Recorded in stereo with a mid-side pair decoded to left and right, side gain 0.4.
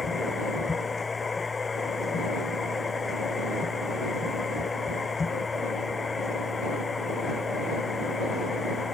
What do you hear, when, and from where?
0.0 s a machine running: 35° left